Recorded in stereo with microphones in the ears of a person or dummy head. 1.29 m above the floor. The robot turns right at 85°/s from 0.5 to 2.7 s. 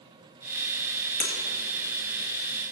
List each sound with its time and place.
1.2 s breaking glass: 45° left (ahead or behind), 2.5 m; by 1.3 s 35° left (ahead or behind), 2.5 m